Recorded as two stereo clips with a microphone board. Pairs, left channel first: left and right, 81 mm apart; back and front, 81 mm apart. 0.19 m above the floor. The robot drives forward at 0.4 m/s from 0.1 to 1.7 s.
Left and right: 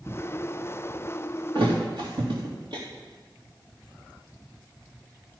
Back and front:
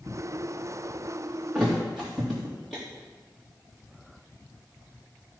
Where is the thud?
90° right, 3.5 m; by 2.8 s 95° right, 4 m.